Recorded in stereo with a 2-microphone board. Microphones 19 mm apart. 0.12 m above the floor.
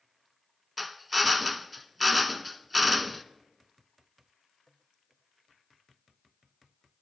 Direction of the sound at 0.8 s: 5° right (ahead or behind).